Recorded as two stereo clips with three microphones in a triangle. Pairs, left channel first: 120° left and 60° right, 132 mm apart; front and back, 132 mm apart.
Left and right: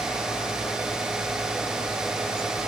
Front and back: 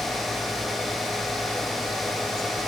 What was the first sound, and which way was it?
Only background noise.